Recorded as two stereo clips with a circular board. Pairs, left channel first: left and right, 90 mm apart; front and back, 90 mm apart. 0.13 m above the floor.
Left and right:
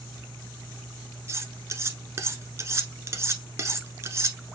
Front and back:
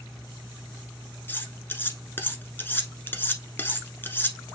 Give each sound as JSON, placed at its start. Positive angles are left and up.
{"t": 1.3, "sound": "cutlery clinking", "azimuth_deg": -55, "distance_m": 1.0}